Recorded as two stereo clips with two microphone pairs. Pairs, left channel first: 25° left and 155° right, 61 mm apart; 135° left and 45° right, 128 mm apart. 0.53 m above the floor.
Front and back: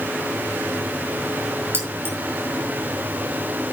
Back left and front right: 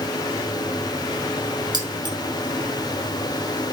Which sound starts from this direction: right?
Keys jangling, at 1.7 s.